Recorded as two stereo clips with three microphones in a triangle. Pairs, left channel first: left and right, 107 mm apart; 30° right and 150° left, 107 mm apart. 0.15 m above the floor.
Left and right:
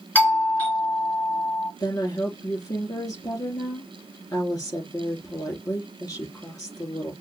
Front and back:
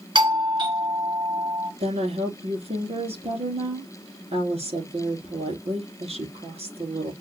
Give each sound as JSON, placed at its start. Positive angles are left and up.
{"t": 0.1, "sound": "a doorbell", "azimuth_deg": 160, "distance_m": 2.5}
{"t": 1.8, "sound": "a woman speaking", "azimuth_deg": 145, "distance_m": 4.5}